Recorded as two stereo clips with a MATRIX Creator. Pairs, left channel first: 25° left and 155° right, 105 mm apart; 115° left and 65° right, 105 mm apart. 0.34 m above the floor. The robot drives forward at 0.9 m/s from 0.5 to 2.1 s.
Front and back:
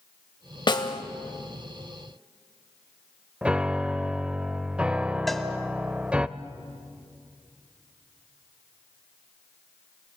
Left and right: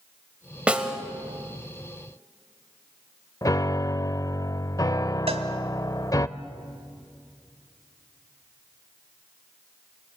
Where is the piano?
130° left, 0.6 m.